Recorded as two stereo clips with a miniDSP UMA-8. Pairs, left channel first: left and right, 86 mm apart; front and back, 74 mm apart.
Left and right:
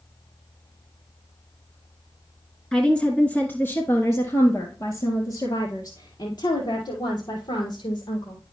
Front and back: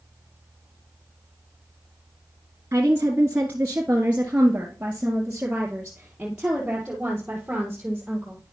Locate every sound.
2.7 s a woman speaking: 165° left, 1.3 m; by 8.4 s 100° left, 3.5 m